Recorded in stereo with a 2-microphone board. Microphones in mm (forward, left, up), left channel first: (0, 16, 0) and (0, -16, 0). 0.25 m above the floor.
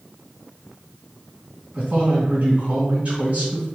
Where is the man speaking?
45° right (ahead or behind), 1.7 m.